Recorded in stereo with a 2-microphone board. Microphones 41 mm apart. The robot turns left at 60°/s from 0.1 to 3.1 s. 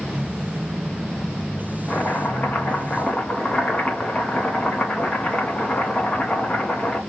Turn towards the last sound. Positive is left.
turn(degrees=45)